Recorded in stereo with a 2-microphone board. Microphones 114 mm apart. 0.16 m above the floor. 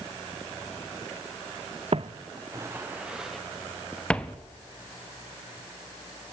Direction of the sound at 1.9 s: 60° right (ahead or behind).